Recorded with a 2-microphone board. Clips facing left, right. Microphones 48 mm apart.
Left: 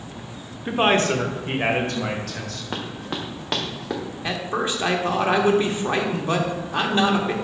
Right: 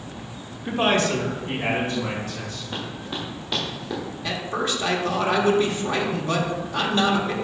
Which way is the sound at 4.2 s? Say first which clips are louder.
Left 1 dB; 25° left (ahead or behind).